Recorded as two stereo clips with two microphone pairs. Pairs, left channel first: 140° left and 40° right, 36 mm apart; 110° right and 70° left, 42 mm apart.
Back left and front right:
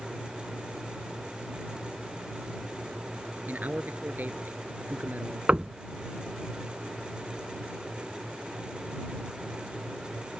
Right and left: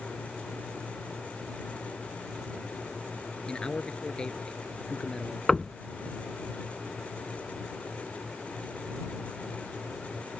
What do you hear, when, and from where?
3.5 s a man speaking: 45° right
5.5 s knocking: 45° right